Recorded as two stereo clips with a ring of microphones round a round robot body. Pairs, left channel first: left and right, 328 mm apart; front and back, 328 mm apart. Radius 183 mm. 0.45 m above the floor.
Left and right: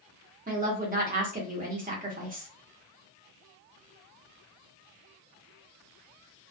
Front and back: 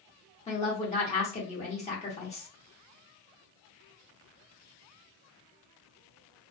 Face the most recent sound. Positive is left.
turn(degrees=-50)